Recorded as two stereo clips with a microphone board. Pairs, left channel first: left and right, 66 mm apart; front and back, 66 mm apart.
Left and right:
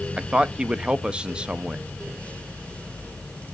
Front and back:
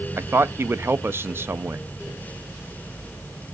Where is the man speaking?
155° right, 0.6 m.